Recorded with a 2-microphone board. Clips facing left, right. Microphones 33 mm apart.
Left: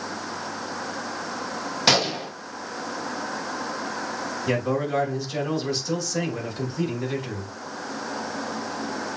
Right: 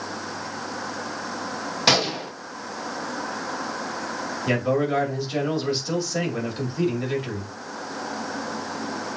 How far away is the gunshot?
About 0.6 m.